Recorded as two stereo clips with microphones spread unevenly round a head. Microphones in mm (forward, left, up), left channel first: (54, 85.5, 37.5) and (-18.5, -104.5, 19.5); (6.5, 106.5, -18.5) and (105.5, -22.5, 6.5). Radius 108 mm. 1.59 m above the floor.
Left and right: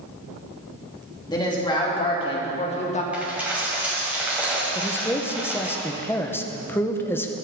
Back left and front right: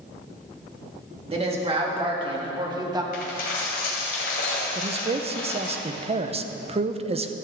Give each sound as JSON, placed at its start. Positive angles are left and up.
{"t": 1.3, "sound": "a woman speaking", "azimuth_deg": 0, "distance_m": 3.0}
{"t": 3.1, "sound": "a dropped coin", "azimuth_deg": 160, "distance_m": 2.0}
{"t": 4.8, "sound": "a man speaking", "azimuth_deg": -10, "distance_m": 0.9}